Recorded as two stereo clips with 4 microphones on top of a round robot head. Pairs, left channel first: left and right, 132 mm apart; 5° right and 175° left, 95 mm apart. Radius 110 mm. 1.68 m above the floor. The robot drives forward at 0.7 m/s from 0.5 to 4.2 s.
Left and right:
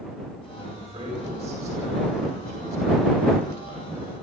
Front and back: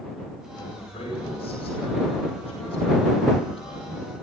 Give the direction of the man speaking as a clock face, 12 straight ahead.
1 o'clock.